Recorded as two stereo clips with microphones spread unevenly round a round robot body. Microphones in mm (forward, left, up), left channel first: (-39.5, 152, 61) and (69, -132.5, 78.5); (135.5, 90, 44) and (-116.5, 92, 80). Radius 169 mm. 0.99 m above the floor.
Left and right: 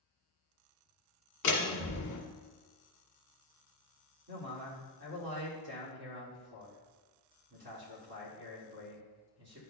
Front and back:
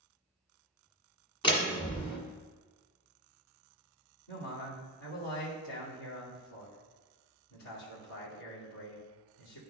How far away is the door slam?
About 1.9 m.